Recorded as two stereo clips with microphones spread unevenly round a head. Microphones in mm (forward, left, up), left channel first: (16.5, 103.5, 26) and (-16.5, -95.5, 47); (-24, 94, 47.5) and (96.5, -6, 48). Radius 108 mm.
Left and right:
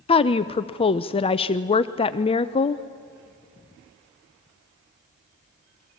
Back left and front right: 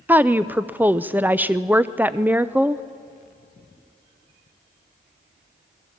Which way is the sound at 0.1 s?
35° left.